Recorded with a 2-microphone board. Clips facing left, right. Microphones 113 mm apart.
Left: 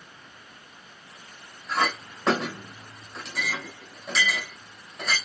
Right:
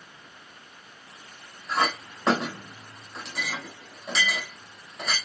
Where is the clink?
Centre (ahead or behind), 1.8 m.